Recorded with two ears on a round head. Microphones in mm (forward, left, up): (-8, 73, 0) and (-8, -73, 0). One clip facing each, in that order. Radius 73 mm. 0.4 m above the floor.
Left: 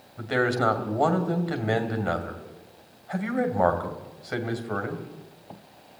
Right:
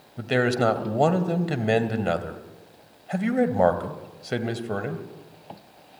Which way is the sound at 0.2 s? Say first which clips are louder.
Right 2 dB; 30° right (ahead or behind).